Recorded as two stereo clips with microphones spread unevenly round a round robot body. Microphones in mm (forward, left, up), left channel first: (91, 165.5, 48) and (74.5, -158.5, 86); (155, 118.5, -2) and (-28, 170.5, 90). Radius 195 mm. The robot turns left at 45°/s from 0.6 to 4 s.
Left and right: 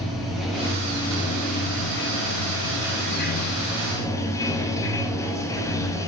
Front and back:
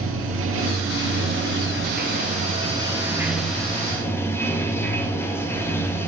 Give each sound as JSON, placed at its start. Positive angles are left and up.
{"t": 0.0, "sound": "running water", "azimuth_deg": 170, "distance_m": 0.9}